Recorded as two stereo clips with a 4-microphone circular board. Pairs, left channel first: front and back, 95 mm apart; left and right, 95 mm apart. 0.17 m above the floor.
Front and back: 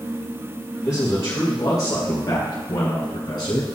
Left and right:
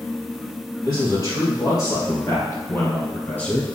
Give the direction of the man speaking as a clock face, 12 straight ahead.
10 o'clock.